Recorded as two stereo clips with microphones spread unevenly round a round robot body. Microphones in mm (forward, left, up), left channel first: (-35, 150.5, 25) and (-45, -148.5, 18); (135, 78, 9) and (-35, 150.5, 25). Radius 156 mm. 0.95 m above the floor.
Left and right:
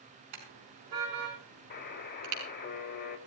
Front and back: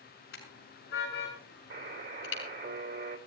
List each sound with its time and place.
0.3 s a car horn: 70° right, 5.5 m; by 2.4 s 55° right, 5.5 m
1.7 s a buzzer: 145° left, 4 m